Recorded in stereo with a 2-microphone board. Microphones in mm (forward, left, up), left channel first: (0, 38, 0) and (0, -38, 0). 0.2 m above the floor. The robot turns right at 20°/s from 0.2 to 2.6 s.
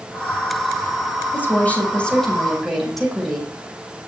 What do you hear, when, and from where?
1.3 s a woman speaking: 25° left (ahead or behind), 8.5 m; by 3.5 s centre (ahead or behind), 8.5 m